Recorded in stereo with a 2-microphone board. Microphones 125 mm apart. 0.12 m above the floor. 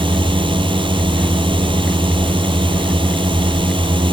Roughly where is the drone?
Right.